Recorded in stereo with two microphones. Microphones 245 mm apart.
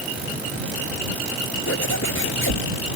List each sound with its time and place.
1.7 s a zipper: 60° left (ahead or behind)